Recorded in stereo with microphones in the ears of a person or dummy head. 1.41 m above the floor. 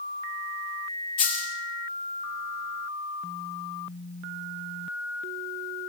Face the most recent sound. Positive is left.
turn(degrees=30)  # may be behind; listen again after turning